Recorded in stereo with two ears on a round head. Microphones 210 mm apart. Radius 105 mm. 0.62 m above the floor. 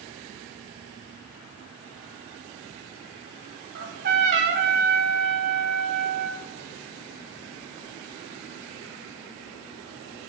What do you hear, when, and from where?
3.8 s a trumpet: 50° right (ahead or behind), 0.9 m